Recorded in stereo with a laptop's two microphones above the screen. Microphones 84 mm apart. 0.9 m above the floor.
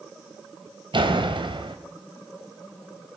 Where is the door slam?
90° right, 3 m.